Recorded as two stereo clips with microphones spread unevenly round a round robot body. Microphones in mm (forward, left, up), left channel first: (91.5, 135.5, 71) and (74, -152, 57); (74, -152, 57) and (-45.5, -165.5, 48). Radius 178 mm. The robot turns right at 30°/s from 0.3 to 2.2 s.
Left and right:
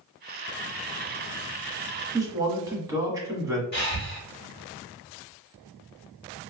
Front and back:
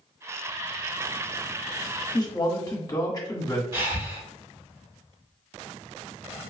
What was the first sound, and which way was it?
A man speaking, 30° right.